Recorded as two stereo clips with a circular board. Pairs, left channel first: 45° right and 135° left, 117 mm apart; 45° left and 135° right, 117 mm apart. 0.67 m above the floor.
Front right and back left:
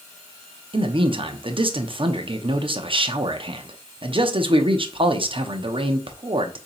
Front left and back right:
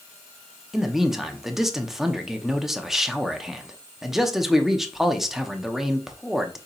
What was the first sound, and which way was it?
A man speaking, 140° left.